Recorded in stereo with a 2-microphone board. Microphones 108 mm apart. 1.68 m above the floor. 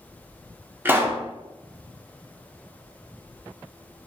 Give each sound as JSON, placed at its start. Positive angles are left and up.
{"t": 0.8, "sound": "a pop", "side_deg": -20, "distance_m": 0.6}